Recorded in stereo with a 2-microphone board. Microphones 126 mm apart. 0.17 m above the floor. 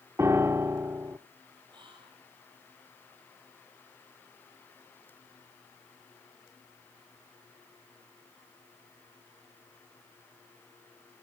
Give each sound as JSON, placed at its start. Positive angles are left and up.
{"t": 0.2, "sound": "a piano", "side_deg": -20, "distance_m": 0.7}
{"t": 1.7, "sound": "whispering", "side_deg": -35, "distance_m": 6.5}